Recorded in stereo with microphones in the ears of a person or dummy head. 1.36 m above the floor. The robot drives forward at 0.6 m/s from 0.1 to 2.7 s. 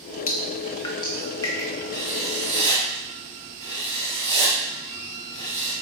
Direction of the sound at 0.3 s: 40° left (ahead or behind).